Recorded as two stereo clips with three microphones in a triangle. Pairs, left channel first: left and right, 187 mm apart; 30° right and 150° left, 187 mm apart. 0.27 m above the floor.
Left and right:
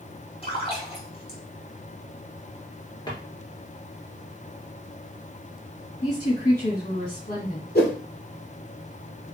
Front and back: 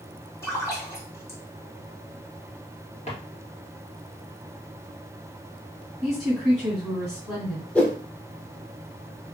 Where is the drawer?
25° left, 1.7 m.